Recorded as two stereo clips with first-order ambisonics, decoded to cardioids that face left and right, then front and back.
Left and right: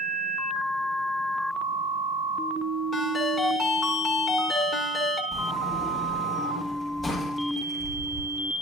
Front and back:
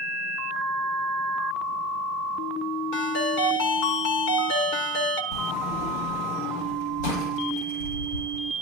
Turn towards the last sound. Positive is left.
turn(degrees=0)